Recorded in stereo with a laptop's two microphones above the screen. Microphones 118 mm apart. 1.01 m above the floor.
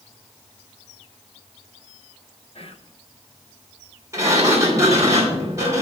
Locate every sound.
2.5 s whispering: 55° left (ahead or behind), 0.8 m
4.1 s a sliding door: 25° right (ahead or behind), 3 m